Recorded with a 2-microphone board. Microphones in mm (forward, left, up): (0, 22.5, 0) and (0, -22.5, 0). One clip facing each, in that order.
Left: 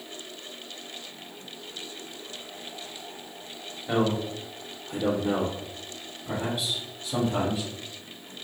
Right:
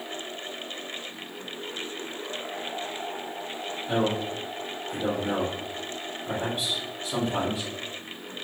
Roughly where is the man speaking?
Left.